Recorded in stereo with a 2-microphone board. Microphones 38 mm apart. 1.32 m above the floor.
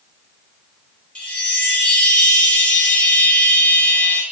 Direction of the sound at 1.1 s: 35° left (ahead or behind).